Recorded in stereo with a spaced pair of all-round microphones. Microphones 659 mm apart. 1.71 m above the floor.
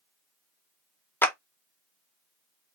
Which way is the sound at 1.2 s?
5° left (ahead or behind).